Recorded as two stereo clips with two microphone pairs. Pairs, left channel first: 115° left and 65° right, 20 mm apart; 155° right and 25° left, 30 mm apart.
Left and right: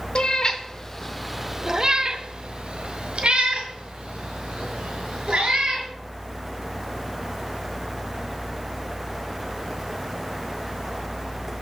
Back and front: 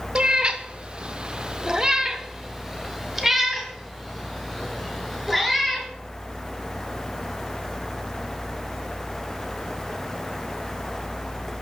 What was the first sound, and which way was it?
A cat meowing, 80° left.